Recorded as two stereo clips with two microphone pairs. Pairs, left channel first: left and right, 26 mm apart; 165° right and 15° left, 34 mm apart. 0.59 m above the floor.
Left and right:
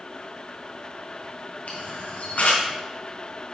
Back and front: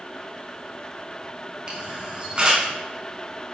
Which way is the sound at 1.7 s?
75° left.